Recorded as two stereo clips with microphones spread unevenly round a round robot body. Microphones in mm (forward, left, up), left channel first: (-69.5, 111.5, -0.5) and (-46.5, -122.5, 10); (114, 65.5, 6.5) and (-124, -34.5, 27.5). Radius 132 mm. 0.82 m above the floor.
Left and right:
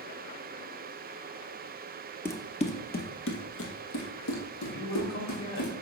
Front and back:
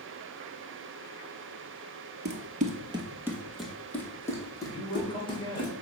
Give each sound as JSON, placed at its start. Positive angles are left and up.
{"t": 2.2, "sound": "running footsteps", "azimuth_deg": 175, "distance_m": 1.1}
{"t": 4.7, "sound": "a man speaking", "azimuth_deg": 95, "distance_m": 3.5}